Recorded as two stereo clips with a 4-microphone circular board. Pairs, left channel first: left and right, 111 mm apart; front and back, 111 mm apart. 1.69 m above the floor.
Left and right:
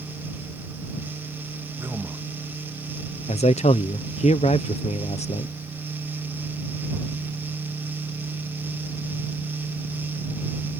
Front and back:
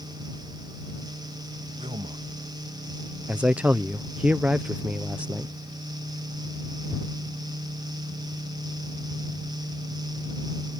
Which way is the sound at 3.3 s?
100° left.